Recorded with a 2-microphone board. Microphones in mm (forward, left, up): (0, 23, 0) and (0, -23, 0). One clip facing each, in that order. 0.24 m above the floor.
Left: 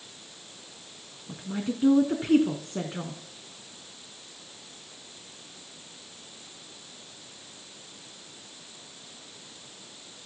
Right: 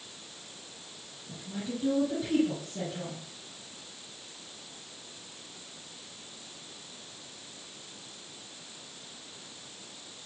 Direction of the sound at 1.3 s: 50° left (ahead or behind).